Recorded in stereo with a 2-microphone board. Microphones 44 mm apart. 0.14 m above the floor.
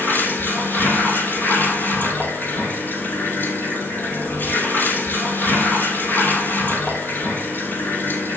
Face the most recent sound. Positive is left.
turn(degrees=50)  # may be behind; listen again after turning